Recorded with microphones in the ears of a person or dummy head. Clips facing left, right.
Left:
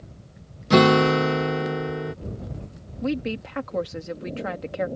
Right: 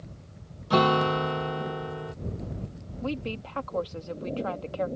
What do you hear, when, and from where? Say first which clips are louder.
0.7 s a guitar: left 7 dB; 25° left (ahead or behind)
3.0 s a woman speaking: left 6 dB; 25° left (ahead or behind)